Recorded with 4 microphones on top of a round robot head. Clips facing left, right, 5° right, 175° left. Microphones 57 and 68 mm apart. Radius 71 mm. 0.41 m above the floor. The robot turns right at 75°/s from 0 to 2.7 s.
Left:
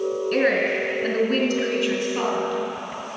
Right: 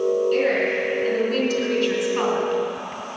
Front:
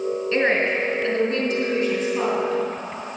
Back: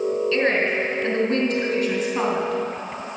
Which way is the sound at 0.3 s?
50° left.